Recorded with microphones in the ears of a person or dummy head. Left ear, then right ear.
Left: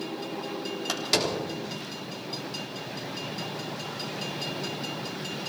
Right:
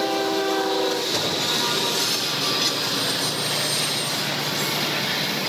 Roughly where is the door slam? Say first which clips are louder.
Right 4 dB; left.